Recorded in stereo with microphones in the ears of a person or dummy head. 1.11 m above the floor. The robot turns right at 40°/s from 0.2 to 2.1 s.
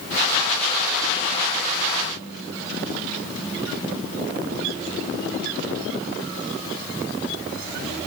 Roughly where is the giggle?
I don't hear a giggle.